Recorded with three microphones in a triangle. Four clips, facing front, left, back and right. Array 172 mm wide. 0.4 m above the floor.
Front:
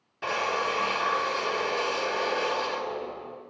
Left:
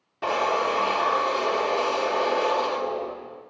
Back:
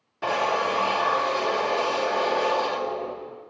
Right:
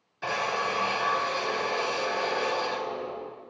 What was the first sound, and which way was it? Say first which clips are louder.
A drill: left 6 dB, back 4 dB; 120° left.